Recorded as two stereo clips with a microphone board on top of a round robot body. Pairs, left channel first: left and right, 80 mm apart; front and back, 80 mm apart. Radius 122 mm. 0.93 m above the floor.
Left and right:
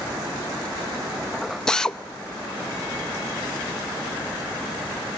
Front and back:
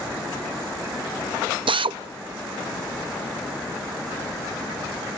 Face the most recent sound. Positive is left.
turn(degrees=175)